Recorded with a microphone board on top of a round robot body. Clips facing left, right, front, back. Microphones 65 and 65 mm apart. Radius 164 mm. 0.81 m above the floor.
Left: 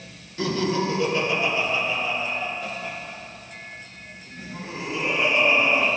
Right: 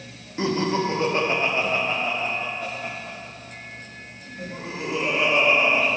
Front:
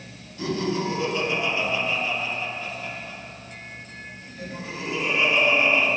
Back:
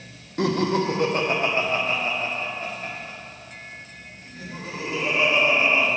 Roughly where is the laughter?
Behind right.